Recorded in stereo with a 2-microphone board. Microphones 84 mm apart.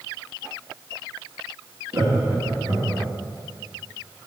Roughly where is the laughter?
Right.